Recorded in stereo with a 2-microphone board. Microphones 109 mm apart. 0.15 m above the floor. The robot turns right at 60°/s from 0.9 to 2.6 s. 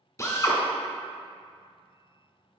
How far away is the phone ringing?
No phone ringing in this recording.